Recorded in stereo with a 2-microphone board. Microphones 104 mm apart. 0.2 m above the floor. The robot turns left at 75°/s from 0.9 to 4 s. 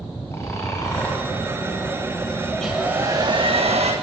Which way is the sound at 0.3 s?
25° left (ahead or behind).